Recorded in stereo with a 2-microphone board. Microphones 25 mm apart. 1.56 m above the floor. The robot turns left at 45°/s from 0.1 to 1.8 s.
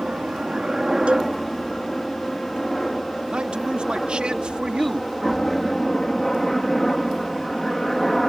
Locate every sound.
0.0 s a helicopter: 50° right (ahead or behind); by 8.3 s 10° left (ahead or behind)
1.1 s a cowbell: 45° right (ahead or behind); by 1.3 s 30° right (ahead or behind)
3.3 s a man speaking: 40° right (ahead or behind)